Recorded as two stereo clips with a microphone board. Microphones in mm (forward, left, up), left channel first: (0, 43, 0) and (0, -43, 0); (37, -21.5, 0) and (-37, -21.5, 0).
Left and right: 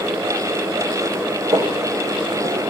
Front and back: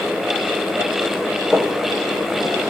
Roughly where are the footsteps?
Right.